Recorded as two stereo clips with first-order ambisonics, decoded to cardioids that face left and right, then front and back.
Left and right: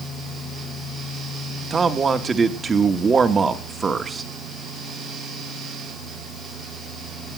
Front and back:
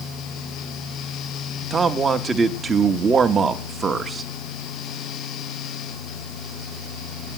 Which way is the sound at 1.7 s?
135° right.